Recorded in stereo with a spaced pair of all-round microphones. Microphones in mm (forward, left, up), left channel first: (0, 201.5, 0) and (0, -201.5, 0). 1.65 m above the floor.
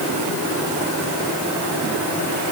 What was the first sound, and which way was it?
Only background noise.